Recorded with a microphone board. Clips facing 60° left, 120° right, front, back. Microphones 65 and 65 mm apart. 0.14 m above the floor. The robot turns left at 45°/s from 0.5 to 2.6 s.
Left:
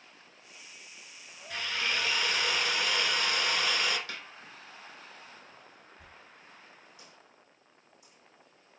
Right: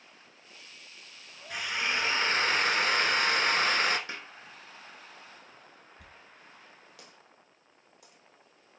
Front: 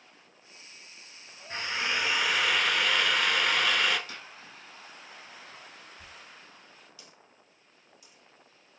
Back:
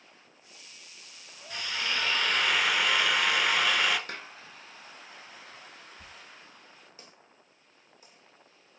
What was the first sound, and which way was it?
A drill, 40° right.